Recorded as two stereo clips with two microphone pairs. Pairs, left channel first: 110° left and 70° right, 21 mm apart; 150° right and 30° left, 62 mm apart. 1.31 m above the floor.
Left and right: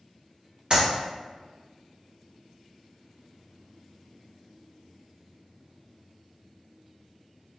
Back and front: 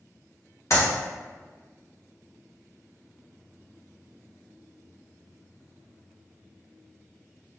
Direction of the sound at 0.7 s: 120° right.